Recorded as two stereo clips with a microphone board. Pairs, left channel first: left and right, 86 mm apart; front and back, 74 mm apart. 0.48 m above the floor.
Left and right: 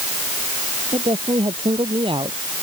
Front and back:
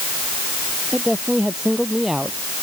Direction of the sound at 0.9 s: 95° right.